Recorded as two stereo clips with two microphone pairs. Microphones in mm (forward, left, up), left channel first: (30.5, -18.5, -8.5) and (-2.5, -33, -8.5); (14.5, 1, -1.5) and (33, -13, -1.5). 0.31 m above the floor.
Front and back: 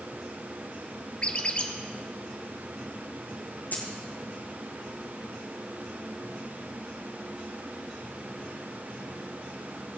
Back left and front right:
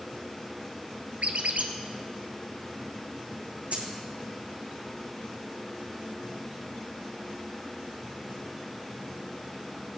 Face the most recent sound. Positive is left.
turn(degrees=-15)